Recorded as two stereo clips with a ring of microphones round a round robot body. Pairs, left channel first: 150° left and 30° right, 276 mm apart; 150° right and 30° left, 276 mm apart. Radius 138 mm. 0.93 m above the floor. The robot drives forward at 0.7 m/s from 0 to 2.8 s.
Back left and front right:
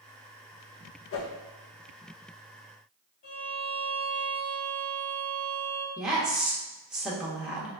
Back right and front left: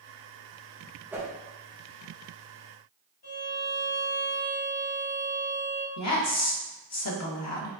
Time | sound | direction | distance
1.1 | a whoosh | 110° left | 0.8 m
3.2 | a violin | straight behind | 0.9 m
6.0 | a woman speaking | 115° right | 1.0 m